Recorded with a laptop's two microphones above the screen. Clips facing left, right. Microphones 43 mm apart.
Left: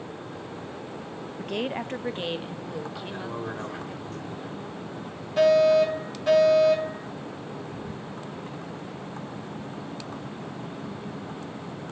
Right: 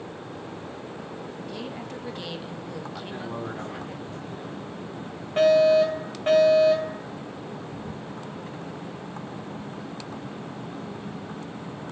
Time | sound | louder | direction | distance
1.4 | a woman speaking | left 9 dB | 65° left (ahead or behind) | 0.9 m
3.0 | a man speaking | even | 15° right (ahead or behind) | 6 m
5.4 | a fire alarm | right 1 dB | 40° right (ahead or behind) | 4.5 m